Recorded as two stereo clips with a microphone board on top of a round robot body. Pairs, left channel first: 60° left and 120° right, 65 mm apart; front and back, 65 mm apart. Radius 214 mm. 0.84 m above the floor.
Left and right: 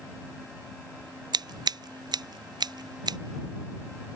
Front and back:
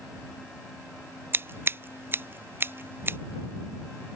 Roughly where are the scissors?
Behind right.